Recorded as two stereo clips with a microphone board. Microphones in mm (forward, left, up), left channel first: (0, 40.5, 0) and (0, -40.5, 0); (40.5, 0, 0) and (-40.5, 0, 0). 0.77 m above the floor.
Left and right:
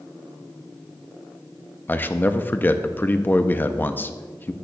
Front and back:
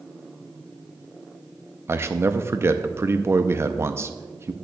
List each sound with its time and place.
1.9 s a man speaking: 145° left, 0.5 m